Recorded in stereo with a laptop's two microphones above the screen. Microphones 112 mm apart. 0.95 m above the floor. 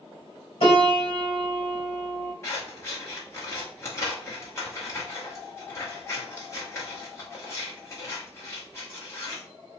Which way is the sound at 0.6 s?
55° left (ahead or behind).